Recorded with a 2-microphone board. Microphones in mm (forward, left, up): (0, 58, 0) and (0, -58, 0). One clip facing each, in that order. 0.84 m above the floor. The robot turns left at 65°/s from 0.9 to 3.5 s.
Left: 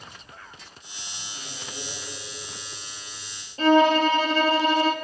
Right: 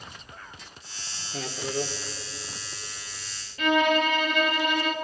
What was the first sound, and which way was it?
A man speaking, 95° right.